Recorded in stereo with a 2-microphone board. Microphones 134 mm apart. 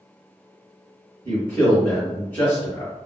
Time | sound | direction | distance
1.2 | a man speaking | 15° left (ahead or behind) | 1.7 m